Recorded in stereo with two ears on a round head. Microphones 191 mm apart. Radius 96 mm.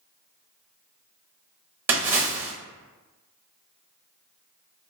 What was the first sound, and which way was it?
A splash, 10° right (ahead or behind).